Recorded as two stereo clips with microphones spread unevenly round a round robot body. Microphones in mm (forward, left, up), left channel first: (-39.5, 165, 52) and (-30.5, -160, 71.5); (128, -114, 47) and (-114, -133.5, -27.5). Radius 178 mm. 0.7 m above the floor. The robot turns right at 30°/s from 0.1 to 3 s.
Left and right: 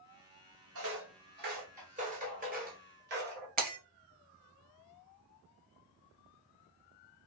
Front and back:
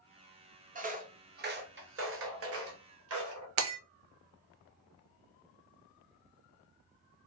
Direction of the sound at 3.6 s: 150° right.